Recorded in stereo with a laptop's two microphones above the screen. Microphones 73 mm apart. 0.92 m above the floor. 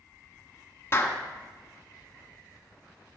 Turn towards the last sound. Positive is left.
turn(degrees=35)  # may be behind; listen again after turning